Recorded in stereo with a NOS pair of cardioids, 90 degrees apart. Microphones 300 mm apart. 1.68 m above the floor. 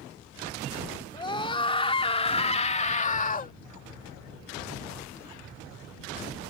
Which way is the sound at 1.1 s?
15° left.